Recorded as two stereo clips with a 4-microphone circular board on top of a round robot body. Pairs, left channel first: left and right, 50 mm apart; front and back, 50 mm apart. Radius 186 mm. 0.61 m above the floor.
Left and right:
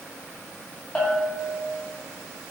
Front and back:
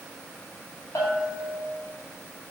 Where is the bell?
15° left, 0.6 m.